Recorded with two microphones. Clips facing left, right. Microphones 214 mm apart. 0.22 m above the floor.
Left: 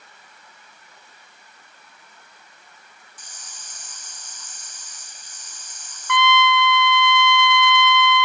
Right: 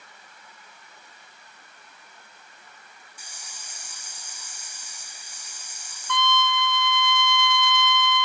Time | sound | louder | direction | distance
3.2 | a hiss | even | 10° right (ahead or behind) | 1.9 m
6.1 | a trumpet | left 6 dB | 65° left (ahead or behind) | 0.6 m